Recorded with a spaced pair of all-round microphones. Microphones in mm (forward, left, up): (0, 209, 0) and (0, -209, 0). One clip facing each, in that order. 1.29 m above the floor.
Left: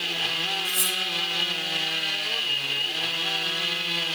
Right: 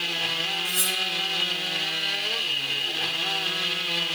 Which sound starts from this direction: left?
Cutlery clinking, at 0.7 s.